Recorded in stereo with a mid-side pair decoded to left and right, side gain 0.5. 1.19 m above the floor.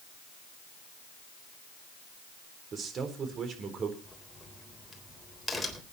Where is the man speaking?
50° right, 4 m.